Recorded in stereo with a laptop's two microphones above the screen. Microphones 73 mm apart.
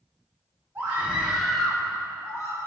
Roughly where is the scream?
Right.